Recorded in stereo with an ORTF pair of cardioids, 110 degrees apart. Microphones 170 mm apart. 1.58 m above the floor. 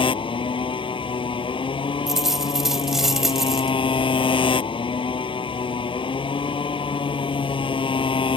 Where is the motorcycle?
30° left.